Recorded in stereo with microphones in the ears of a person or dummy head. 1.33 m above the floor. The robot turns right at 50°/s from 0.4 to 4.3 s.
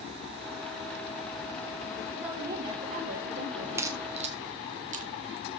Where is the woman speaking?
Straight behind, 2.5 m; by 4.1 s 85° right, 2.5 m.